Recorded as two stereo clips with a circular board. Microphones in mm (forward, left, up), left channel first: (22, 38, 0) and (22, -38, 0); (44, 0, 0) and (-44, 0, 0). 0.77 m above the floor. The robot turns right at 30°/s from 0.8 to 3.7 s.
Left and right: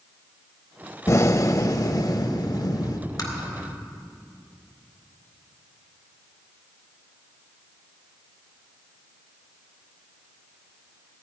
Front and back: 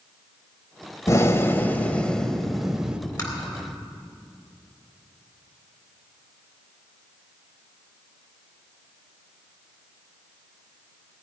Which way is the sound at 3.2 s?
45° left.